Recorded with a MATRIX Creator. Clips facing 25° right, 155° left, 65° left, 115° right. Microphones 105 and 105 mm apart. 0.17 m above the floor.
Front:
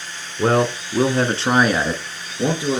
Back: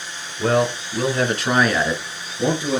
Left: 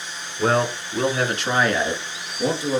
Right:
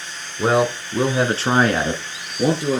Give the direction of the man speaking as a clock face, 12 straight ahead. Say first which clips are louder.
Front 1 dB, right 3 dB; 1 o'clock.